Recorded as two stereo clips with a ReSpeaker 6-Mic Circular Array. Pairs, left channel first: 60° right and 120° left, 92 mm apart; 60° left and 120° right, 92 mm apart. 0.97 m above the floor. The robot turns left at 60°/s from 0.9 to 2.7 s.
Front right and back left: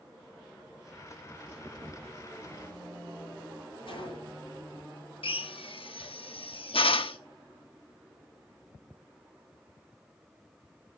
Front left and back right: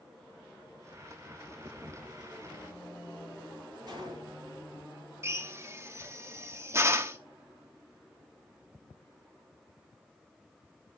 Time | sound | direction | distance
3.9 | a gunshot | 80° right | 7 m
5.2 | a drill | 60° right | 0.9 m